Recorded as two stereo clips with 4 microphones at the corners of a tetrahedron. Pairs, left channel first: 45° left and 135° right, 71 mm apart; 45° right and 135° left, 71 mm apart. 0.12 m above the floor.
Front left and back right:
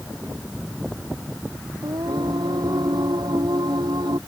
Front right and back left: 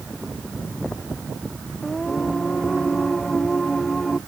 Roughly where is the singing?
Behind right.